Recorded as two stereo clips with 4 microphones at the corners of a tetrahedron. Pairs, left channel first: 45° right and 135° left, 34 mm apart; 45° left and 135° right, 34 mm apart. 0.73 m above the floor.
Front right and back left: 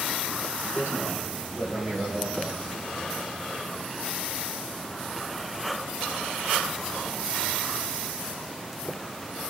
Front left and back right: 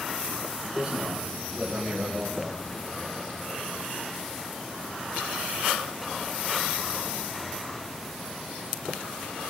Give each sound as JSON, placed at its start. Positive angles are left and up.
{"t": 0.7, "sound": "a man speaking", "azimuth_deg": 150, "distance_m": 7.0}